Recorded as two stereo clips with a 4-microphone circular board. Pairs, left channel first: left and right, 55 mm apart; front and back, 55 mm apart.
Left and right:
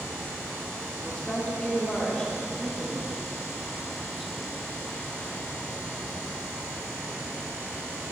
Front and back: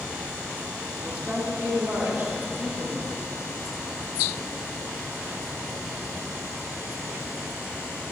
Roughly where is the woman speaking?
Behind left.